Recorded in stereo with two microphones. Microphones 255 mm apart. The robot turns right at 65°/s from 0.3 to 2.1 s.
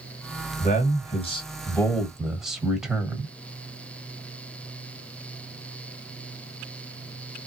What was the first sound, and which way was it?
A man speaking, 30° left (ahead or behind).